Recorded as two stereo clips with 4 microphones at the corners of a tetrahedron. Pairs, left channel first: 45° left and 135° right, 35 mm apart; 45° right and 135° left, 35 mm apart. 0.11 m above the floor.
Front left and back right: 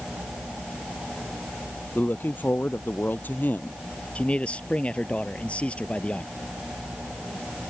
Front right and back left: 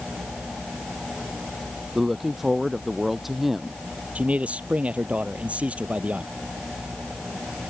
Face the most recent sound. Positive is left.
turn(degrees=90)